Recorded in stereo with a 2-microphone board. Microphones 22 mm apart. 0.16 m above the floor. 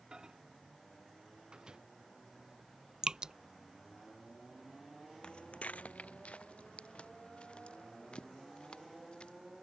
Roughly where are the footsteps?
Left.